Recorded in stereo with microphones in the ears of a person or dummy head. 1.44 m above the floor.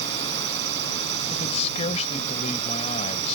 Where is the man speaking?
40° left (ahead or behind).